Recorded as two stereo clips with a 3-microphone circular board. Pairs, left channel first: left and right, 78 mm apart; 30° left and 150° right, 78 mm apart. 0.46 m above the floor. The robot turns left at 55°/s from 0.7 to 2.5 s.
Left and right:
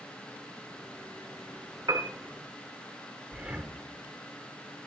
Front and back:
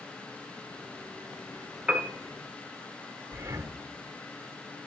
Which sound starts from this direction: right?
A piano, at 1.9 s.